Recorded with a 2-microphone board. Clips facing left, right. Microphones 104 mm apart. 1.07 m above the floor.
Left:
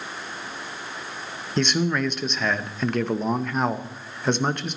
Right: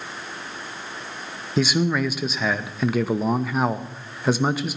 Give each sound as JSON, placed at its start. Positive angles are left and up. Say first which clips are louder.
{"t": 1.6, "sound": "a man speaking", "louder": "right 2 dB", "side_deg": -5, "distance_m": 0.8}